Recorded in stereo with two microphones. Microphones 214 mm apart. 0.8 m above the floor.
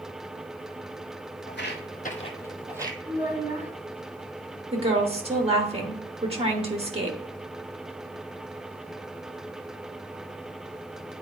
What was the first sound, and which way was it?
Footsteps, 60° left (ahead or behind).